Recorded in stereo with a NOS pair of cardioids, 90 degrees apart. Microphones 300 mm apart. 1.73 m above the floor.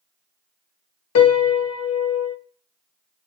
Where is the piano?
55° left, 0.6 m.